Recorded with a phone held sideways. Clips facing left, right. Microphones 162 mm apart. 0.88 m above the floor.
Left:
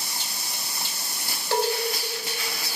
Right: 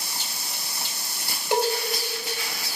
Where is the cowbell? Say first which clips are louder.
Right 1 dB; 15° right (ahead or behind), 1.0 m.